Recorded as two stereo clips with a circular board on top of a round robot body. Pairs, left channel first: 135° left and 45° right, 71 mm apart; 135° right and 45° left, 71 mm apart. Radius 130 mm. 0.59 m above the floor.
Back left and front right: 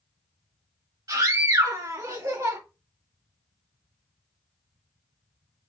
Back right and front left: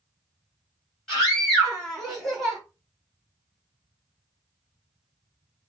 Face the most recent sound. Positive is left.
turn(degrees=-40)